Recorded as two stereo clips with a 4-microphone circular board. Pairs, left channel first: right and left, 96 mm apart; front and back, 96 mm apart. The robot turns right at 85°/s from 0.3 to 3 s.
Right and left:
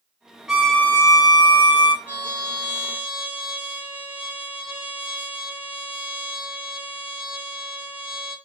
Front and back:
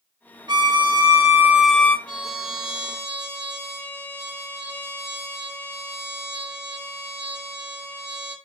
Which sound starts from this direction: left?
A trumpet, at 2.0 s.